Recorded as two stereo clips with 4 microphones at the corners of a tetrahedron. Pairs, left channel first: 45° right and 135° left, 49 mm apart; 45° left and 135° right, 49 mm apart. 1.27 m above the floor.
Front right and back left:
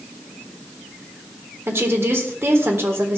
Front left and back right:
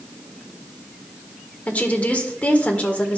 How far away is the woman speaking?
About 1.4 m.